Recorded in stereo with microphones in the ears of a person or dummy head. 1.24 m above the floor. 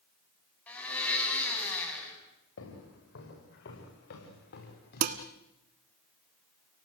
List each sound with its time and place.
0.7 s a blender: 10° left (ahead or behind), 6 m
2.6 s footsteps: 65° left (ahead or behind), 6.5 m; by 5.2 s 55° left (ahead or behind), 7 m
5.0 s dishes clattering: 50° right (ahead or behind), 1.3 m